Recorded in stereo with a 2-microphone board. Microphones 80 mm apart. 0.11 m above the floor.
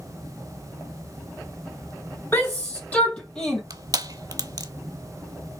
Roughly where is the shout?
Left.